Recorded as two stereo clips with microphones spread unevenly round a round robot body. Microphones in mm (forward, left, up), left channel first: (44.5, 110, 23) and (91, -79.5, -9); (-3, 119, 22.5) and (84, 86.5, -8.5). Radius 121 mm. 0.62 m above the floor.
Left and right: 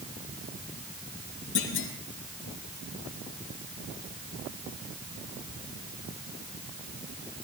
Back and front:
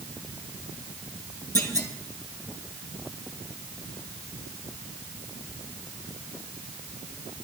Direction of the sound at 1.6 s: 100° left.